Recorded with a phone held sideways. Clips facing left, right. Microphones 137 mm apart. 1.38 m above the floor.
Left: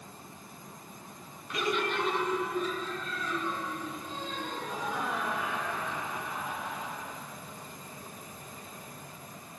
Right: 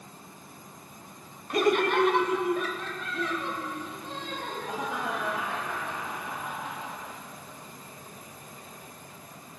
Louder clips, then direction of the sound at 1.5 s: Right 8 dB; 50° right (ahead or behind).